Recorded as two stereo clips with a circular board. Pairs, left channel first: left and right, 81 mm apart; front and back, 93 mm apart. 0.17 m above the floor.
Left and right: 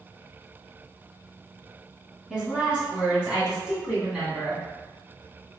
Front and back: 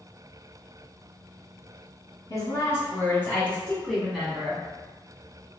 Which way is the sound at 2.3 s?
15° right.